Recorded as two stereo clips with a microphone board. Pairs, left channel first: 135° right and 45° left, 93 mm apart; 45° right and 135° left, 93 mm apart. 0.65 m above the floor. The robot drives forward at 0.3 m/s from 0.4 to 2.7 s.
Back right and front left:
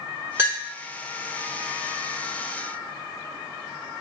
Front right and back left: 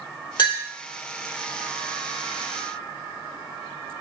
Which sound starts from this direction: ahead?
A clink, at 0.4 s.